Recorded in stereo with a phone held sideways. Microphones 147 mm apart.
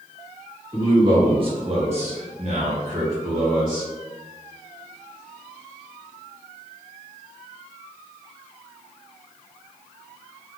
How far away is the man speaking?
About 1.7 m.